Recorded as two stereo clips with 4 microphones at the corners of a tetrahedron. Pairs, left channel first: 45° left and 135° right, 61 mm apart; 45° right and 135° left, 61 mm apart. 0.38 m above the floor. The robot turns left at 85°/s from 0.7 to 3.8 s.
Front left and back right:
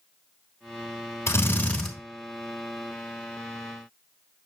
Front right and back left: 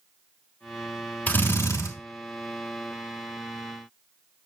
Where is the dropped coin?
No dropped coin in this recording.